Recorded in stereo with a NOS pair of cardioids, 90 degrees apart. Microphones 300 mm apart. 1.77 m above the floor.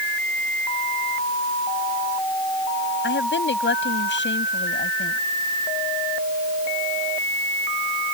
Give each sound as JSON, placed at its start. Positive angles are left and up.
{"t": 3.0, "sound": "a woman speaking", "azimuth_deg": 40}